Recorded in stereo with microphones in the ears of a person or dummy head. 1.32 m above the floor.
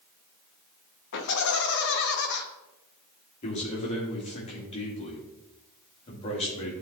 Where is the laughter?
65° left (ahead or behind), 1.1 m.